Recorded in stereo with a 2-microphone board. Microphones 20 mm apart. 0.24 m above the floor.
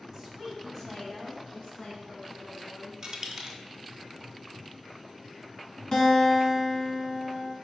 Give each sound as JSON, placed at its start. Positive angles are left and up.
{"t": 0.1, "sound": "a woman speaking", "side_deg": -20, "distance_m": 1.3}
{"t": 3.0, "sound": "a dropped coin", "side_deg": -35, "distance_m": 0.7}
{"t": 5.9, "sound": "a guitar", "side_deg": 40, "distance_m": 1.1}